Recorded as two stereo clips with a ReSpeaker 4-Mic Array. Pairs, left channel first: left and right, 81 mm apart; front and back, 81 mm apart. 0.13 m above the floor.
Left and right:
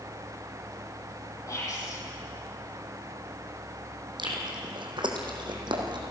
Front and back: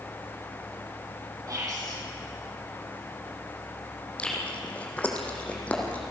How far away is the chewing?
About 3 m.